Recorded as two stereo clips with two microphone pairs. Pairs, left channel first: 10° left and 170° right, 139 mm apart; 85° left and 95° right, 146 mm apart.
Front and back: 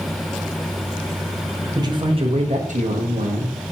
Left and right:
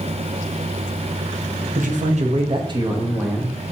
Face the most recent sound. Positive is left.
turn(degrees=180)